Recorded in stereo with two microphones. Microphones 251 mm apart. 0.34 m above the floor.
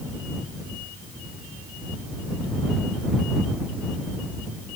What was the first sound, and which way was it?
Only background noise.